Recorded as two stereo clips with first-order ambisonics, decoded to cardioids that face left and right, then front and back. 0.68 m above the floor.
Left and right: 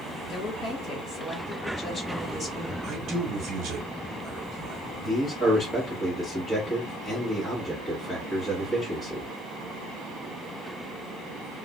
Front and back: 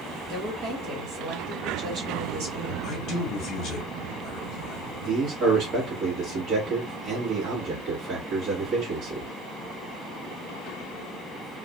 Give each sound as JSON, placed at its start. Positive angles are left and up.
{"t": 0.3, "sound": "a woman speaking", "azimuth_deg": 155, "distance_m": 1.6}
{"t": 2.8, "sound": "a man speaking", "azimuth_deg": -40, "distance_m": 1.0}
{"t": 5.0, "sound": "a man speaking", "azimuth_deg": 175, "distance_m": 1.3}